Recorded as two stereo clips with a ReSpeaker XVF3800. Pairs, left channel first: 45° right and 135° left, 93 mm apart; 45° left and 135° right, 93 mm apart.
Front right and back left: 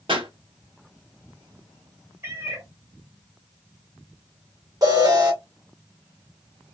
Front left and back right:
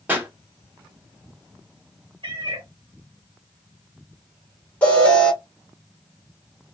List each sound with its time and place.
0.1 s a pop: 155° left, 2.0 m
2.2 s a cat meowing: 165° right, 1.2 m
4.8 s an alarm: 115° left, 2 m